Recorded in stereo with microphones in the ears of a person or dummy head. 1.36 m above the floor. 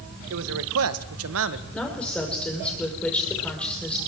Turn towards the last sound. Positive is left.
turn(degrees=5)  # may be behind; listen again after turning